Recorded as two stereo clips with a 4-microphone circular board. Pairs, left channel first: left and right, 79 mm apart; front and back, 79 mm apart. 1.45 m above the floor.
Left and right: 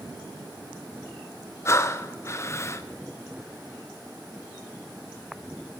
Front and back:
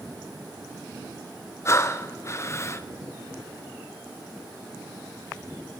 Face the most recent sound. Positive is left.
turn(degrees=45)